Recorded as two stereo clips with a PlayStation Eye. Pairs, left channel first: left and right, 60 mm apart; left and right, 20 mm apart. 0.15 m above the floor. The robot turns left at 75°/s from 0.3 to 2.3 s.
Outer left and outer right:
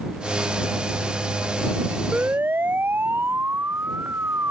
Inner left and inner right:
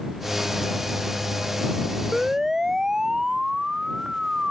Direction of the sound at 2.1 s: 15° right (ahead or behind).